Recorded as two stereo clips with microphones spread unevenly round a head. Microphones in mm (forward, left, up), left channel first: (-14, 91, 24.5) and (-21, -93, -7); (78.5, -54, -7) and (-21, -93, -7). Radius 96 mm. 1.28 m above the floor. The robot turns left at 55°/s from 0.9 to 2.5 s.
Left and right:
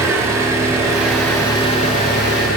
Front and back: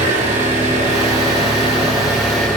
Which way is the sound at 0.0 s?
170° right.